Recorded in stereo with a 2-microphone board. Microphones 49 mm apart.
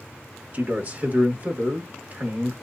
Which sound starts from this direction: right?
A man speaking, at 0.5 s.